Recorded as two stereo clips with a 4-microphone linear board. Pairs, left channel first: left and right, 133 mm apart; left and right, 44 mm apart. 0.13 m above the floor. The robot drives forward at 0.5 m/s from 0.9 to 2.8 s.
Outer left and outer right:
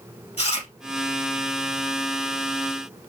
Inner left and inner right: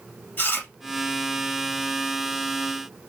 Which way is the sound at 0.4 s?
45° left (ahead or behind).